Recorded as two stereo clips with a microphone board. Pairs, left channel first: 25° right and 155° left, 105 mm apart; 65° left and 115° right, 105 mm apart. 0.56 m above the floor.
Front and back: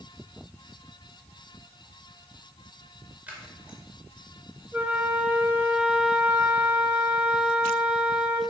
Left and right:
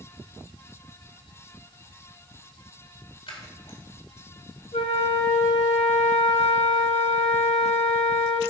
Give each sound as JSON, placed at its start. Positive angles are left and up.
{"t": 3.3, "sound": "scissors", "azimuth_deg": 85, "distance_m": 2.0}
{"t": 4.7, "sound": "a flute", "azimuth_deg": 80, "distance_m": 1.7}